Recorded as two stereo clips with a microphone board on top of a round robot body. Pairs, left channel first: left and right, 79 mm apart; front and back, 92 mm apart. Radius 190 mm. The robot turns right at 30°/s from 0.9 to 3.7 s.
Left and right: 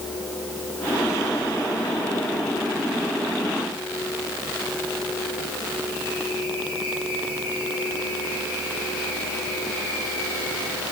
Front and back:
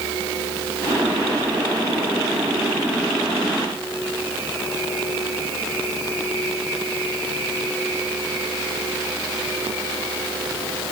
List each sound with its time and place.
Only background noise.